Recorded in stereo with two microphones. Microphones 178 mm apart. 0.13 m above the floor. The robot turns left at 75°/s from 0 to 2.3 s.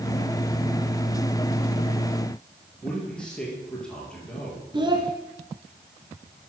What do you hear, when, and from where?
2.8 s a man speaking: 5° left (ahead or behind), 3 m
4.7 s a child speaking: 25° right (ahead or behind), 0.7 m